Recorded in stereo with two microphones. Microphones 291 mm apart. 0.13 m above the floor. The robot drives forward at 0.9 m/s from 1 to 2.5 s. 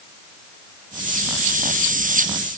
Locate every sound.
Only background noise.